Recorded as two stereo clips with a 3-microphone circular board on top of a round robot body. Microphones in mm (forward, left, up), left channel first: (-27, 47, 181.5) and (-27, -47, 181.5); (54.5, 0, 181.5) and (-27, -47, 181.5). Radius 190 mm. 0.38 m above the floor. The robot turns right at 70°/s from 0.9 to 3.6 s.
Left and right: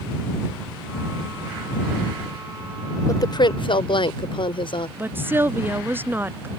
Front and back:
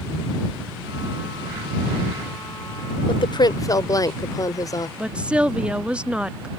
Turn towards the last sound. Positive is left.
turn(degrees=-90)